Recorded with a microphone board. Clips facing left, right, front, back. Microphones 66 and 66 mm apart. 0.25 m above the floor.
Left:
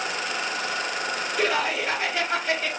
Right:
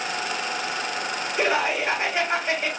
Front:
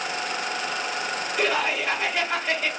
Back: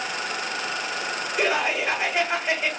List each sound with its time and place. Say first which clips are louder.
1.4 s laughter: right 2 dB, back 1 dB; 130° right, 1.2 m